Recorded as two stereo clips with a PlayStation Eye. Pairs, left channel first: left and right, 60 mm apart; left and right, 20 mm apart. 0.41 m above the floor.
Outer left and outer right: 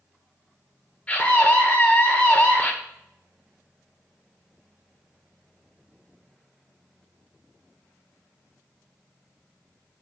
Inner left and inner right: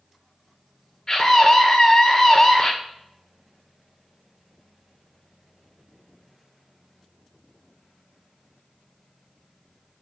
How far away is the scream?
About 1.3 m.